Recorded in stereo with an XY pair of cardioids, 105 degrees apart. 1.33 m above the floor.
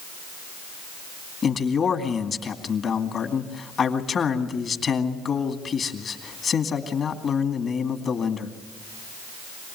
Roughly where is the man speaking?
Ahead left.